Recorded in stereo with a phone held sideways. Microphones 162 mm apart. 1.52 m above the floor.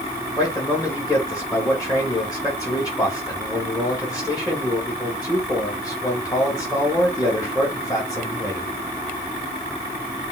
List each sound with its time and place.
0.4 s a man speaking: 20° left (ahead or behind), 3 m